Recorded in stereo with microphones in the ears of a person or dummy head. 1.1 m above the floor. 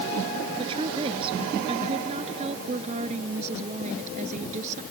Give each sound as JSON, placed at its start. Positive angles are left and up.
{"t": 0.6, "sound": "a woman speaking", "side_deg": -30}